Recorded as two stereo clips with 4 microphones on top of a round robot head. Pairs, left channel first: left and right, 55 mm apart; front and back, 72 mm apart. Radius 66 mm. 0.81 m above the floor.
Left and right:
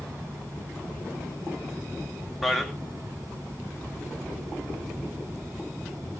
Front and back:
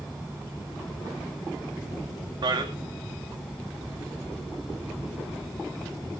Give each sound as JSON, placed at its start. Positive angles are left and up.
{"t": 2.4, "sound": "a man speaking", "azimuth_deg": 180, "distance_m": 2.0}